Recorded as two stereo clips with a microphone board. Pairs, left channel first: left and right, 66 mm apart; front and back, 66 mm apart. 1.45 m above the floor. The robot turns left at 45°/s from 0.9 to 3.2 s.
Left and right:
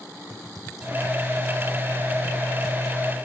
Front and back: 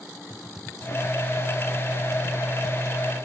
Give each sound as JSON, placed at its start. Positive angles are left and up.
{"t": 0.3, "sound": "typing on a keyboard", "azimuth_deg": -100}